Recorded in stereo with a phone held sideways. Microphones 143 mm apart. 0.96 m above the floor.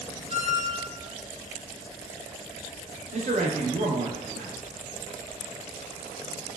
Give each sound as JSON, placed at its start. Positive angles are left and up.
{"t": 0.3, "sound": "a squeak", "side_deg": -45, "distance_m": 0.5}
{"t": 3.1, "sound": "a man speaking", "side_deg": -55, "distance_m": 0.7}